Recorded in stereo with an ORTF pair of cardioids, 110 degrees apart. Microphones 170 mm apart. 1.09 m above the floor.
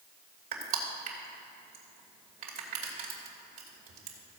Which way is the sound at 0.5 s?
60° right.